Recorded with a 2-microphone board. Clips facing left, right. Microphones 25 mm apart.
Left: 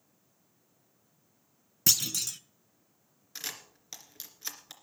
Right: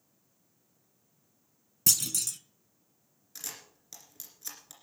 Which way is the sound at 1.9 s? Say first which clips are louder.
Left 1 dB; 20° left (ahead or behind).